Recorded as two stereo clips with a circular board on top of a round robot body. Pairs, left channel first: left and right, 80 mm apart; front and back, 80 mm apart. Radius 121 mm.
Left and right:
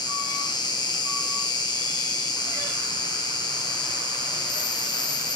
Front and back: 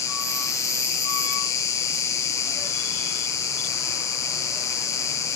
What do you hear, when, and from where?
0.0 s an insect: 55° left, 0.7 m